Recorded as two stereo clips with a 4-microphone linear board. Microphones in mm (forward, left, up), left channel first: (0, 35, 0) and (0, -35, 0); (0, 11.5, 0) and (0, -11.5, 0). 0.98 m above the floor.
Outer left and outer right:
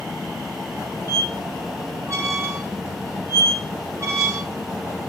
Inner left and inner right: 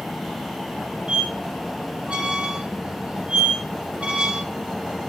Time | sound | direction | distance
1.1 | a squeak | 45° right (ahead or behind) | 0.8 m